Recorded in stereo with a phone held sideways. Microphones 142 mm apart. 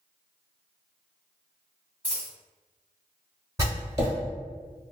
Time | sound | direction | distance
2.0 | a dropped coin | 15° right (ahead or behind) | 1.5 m
3.6 | writing | 20° right (ahead or behind) | 1.3 m